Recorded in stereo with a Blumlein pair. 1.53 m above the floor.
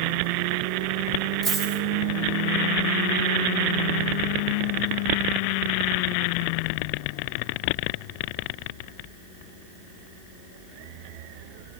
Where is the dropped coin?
30° right, 3.5 m.